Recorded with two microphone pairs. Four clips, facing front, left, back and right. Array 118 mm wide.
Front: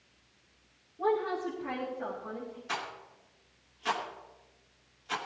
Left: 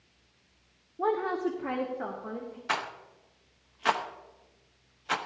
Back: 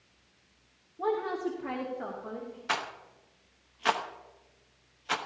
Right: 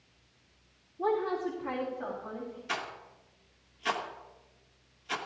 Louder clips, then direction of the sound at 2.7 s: Left 7 dB, back 6 dB; 130° left.